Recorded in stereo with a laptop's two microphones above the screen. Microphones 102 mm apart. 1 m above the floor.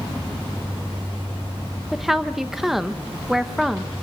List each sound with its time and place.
1.9 s a woman speaking: centre (ahead or behind), 0.7 m